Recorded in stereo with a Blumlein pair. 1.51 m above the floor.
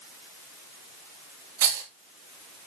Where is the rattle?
55° right, 2.5 m.